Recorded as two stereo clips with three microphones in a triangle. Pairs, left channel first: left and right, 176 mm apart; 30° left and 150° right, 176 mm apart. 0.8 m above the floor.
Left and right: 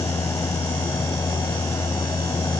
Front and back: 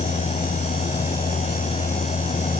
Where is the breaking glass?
No breaking glass in this recording.